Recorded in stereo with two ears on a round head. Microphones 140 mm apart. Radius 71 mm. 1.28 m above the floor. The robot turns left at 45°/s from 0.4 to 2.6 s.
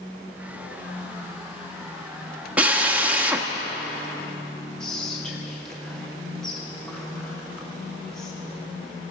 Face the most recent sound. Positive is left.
turn(degrees=5)  # may be behind; listen again after turning